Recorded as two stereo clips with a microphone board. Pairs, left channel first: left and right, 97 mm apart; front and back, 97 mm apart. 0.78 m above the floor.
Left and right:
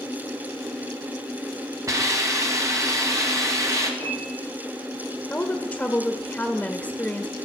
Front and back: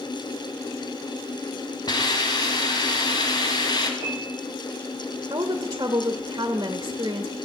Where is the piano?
15° left, 6.5 m.